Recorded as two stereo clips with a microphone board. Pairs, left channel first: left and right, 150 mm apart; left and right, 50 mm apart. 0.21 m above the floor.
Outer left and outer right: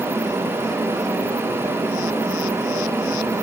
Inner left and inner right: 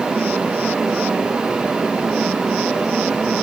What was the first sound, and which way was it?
Only background noise.